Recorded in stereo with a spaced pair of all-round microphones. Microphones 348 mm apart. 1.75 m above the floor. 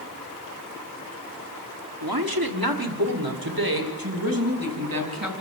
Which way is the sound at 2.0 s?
80° right.